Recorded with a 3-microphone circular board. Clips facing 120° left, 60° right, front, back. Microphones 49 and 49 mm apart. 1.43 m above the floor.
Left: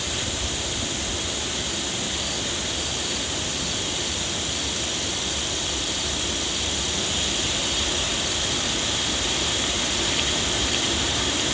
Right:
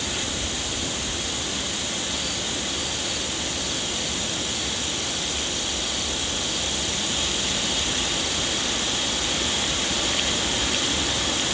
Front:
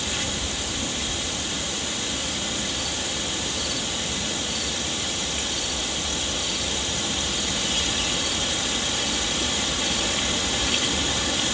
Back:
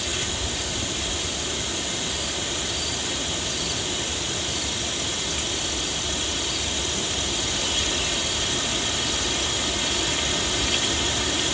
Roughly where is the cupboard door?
No cupboard door in this recording.